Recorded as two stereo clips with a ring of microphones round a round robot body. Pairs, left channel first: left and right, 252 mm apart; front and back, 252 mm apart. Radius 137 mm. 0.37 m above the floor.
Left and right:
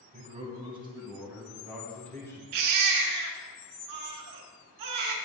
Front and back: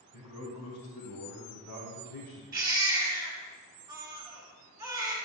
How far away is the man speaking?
About 3 m.